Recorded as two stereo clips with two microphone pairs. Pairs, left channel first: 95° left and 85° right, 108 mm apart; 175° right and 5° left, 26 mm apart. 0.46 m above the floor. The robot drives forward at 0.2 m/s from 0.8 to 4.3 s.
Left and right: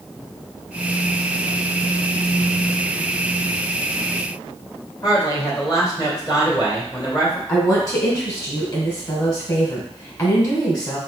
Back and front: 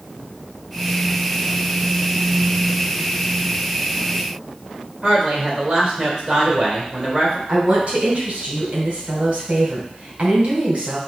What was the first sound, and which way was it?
A woman speaking, 65° left.